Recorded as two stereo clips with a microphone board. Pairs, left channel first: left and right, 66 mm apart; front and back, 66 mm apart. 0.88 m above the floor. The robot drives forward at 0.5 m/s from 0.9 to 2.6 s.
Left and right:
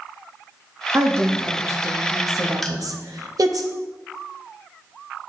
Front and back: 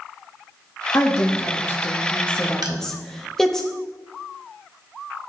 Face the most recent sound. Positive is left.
turn(degrees=175)